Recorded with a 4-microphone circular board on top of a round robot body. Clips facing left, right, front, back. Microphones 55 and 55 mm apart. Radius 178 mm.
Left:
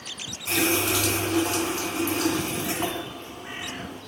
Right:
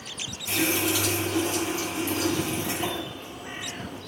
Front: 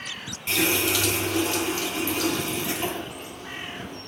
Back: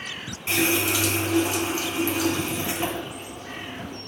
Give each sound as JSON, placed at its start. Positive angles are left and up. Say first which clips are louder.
{"t": 0.5, "sound": "a running tap", "louder": "left 2 dB, back 1 dB", "azimuth_deg": 110, "distance_m": 4.0}